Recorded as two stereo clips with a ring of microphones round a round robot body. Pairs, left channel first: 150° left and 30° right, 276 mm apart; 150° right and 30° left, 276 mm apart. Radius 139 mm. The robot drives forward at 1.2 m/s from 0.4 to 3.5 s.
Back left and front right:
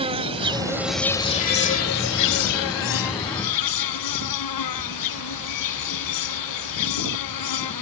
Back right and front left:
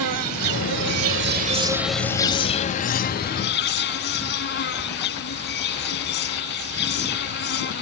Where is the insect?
40° left; by 7.8 s 160° left.